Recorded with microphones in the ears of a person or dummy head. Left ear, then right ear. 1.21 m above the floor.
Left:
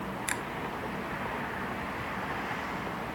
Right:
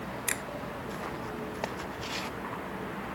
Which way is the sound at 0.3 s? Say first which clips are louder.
Even; 10° right (ahead or behind).